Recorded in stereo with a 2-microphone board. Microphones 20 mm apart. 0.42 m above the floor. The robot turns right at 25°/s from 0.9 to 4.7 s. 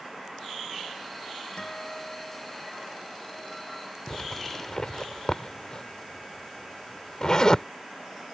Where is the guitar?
140° left; by 4.0 s 160° right.